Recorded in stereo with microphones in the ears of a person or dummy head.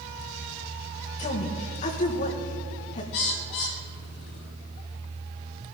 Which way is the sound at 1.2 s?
40° left (ahead or behind).